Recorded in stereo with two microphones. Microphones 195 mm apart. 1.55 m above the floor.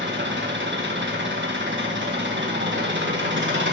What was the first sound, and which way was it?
An engine running, 70° right (ahead or behind).